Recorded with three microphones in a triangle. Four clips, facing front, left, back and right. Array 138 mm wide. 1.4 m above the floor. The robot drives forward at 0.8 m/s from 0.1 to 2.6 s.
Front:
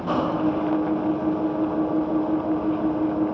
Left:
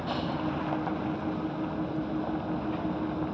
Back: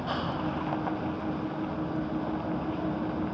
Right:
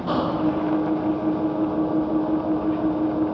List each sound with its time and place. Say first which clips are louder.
0.0 s an engine running: right 9 dB, front 9 dB; 50° right; by 3.4 s 55° right